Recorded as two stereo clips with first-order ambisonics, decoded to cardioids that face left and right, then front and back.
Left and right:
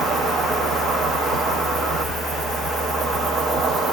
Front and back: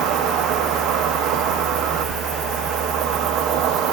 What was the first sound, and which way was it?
An insect, 145° right.